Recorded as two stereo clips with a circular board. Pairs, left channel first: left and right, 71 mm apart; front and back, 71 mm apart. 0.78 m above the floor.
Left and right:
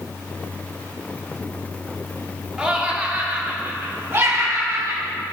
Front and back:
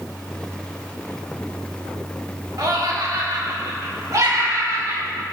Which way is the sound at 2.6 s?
165° right.